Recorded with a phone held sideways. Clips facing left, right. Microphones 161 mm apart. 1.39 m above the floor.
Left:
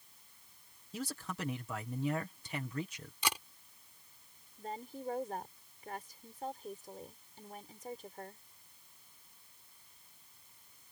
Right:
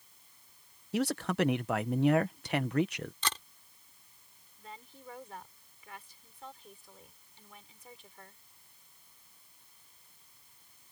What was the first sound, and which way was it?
A man speaking, 70° right (ahead or behind).